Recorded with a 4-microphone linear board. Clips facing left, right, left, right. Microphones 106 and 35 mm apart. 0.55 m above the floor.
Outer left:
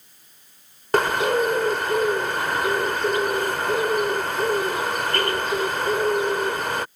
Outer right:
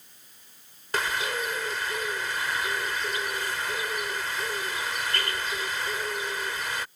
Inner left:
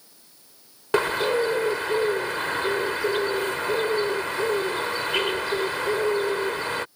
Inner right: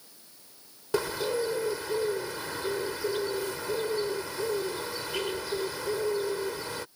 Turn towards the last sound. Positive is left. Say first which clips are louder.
# outer left 10 dB, inner left 7 dB
turn(degrees=55)  # may be behind; listen again after turning